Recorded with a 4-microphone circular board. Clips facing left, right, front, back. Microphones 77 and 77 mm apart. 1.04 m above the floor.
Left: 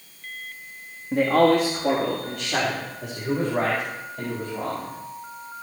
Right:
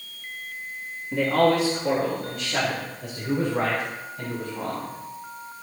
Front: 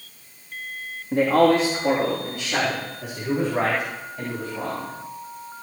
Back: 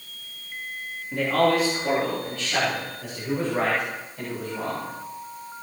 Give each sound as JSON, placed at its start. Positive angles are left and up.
{"t": 1.1, "sound": "a man speaking", "azimuth_deg": 50, "distance_m": 2.0}